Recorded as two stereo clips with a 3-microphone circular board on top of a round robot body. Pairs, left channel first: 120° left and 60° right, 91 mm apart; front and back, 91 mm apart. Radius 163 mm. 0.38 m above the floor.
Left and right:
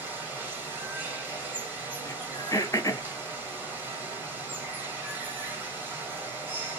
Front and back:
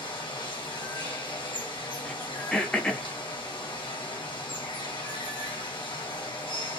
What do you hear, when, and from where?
0.0 s running water: 5° left, 1.7 m
2.0 s throat clearing: 75° left, 0.8 m